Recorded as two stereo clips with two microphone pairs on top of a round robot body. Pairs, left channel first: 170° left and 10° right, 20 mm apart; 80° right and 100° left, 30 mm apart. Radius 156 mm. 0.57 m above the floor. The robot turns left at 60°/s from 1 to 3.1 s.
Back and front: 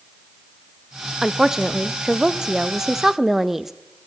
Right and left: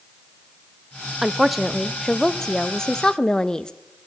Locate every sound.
1.2 s a woman speaking: 35° left, 0.7 m; by 3.7 s 80° right, 0.7 m